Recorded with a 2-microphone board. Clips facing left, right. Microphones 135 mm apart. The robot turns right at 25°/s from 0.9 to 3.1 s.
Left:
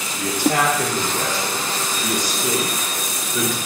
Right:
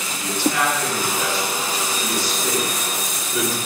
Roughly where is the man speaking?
Left.